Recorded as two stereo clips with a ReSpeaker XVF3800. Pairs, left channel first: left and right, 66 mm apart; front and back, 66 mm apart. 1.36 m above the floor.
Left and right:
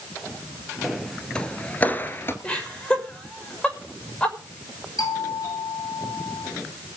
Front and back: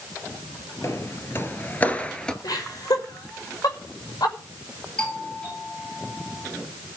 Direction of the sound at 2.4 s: 15° left.